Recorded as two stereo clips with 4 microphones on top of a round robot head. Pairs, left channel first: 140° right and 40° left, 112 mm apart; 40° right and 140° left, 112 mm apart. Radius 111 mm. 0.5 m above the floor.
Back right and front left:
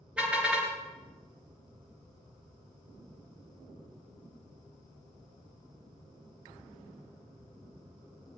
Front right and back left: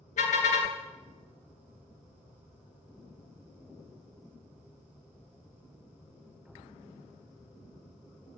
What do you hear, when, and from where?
0.2 s a car horn: 40° right, 3.5 m